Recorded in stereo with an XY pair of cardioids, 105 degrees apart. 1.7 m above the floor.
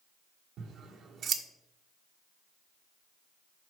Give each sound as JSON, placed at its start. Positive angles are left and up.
{"t": 0.6, "sound": "scissors", "azimuth_deg": -65, "distance_m": 1.3}